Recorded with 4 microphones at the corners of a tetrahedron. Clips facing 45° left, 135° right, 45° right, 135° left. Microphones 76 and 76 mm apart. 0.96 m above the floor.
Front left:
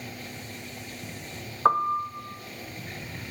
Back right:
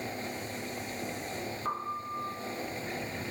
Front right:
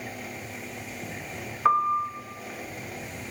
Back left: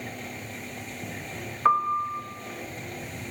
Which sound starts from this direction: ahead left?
A piano, at 1.6 s.